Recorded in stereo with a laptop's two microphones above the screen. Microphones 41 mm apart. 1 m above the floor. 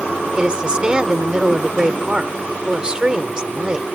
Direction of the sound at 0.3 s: 20° right (ahead or behind).